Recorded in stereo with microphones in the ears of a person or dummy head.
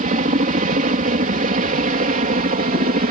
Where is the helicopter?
35° right (ahead or behind).